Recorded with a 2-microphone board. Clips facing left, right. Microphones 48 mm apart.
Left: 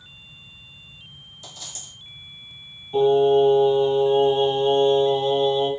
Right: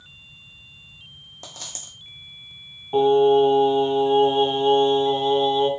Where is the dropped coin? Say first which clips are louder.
Right 2 dB; 60° right (ahead or behind), 1.0 m.